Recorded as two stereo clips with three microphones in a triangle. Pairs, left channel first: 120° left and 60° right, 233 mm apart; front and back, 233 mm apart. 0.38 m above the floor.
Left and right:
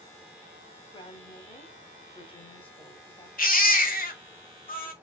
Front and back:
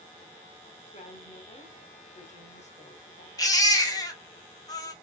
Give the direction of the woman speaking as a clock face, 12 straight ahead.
10 o'clock.